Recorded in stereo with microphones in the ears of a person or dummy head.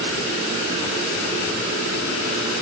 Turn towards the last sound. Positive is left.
No sound to turn to.